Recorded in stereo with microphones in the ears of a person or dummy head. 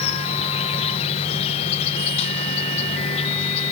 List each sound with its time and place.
0.0 s an insect: 35° left (ahead or behind), 0.9 m